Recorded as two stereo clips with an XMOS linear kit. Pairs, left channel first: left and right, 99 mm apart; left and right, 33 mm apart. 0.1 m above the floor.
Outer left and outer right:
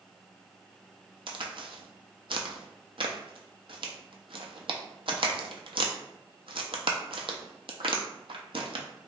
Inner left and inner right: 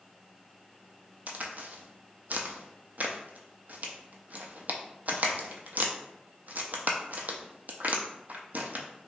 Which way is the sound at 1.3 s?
65° right (ahead or behind).